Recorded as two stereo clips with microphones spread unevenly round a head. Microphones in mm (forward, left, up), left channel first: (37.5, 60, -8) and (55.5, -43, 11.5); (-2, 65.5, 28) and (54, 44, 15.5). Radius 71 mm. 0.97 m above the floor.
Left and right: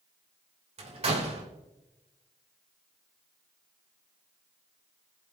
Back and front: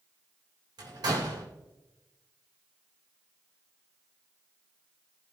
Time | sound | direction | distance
0.8 | a door slam | 55° right | 2.5 m